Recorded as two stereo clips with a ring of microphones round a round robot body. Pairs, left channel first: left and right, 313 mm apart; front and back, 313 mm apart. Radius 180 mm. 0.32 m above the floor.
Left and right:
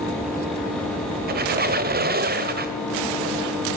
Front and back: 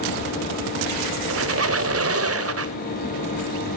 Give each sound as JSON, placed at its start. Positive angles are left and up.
{"t": 1.3, "sound": "a squeak", "azimuth_deg": -145, "distance_m": 1.4}